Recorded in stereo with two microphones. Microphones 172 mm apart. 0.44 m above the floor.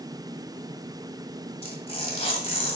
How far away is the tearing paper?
About 1.6 m.